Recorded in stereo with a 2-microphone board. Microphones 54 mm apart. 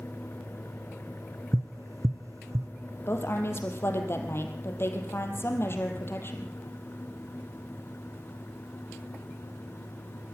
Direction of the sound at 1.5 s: 80° right.